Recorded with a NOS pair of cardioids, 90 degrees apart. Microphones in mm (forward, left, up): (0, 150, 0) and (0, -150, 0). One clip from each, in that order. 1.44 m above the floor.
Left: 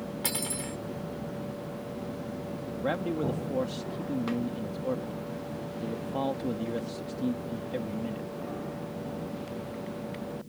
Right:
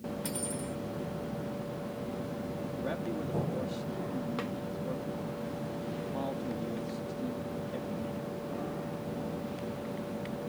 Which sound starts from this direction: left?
Cutlery clinking, at 0.2 s.